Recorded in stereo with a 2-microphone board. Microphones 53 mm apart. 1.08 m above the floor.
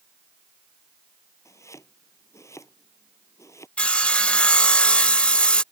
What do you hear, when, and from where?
1.4 s chopping: 80° left
3.8 s sawing: 25° left (ahead or behind)